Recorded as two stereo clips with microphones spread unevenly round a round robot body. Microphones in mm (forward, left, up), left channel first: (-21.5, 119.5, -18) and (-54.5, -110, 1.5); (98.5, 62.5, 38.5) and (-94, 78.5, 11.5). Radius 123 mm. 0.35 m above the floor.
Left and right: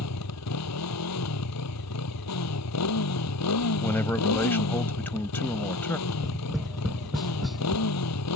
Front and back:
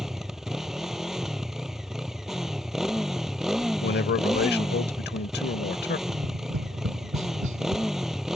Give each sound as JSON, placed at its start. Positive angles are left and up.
{"t": 0.0, "sound": "a motorcycle", "azimuth_deg": 85}
{"t": 3.8, "sound": "a man speaking", "azimuth_deg": 5}
{"t": 6.1, "sound": "tapping", "azimuth_deg": 170}